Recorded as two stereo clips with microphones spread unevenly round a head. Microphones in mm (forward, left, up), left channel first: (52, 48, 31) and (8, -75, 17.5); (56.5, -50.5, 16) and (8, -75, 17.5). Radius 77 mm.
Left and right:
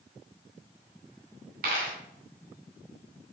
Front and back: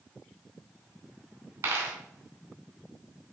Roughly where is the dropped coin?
Behind right.